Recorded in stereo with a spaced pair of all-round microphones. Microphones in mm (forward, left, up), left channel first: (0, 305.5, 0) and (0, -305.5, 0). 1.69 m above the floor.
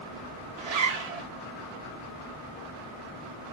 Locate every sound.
0.6 s a zipper: 80° right, 0.6 m